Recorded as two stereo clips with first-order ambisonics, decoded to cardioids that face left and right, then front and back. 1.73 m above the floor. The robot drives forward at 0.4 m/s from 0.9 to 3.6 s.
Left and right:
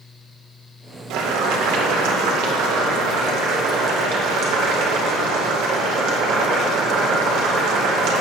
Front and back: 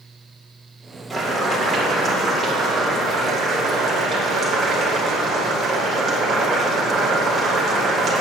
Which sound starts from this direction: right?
Boiling, at 1.1 s.